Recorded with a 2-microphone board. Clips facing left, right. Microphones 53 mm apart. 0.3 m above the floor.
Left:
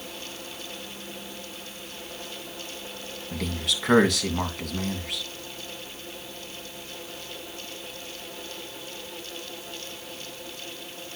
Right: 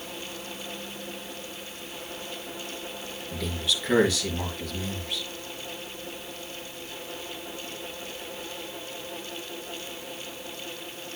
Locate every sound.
3.3 s a man speaking: 65° left (ahead or behind), 2 m